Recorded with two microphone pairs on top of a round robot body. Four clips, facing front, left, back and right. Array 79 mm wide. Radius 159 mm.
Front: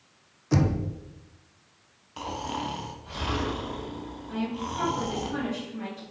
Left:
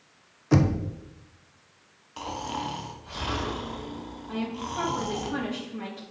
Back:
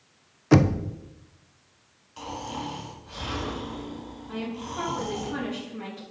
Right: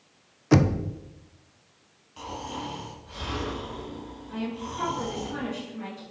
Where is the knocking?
155° right, 0.6 m.